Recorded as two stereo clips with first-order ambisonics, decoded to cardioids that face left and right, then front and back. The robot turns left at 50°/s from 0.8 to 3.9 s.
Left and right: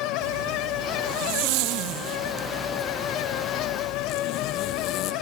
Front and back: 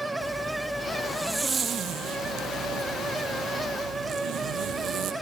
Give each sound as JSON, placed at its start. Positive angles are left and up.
{"t": 0.2, "sound": "a zipper", "azimuth_deg": -70, "distance_m": 2.5}